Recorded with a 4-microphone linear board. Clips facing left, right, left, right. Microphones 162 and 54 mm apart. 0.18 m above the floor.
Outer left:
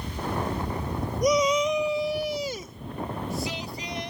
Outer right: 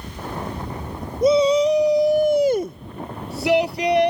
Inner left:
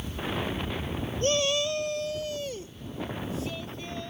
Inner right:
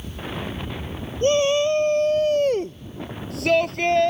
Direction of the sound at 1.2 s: 25° right (ahead or behind).